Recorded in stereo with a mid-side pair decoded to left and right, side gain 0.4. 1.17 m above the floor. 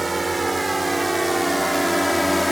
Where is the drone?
25° right; by 2.5 s 10° left.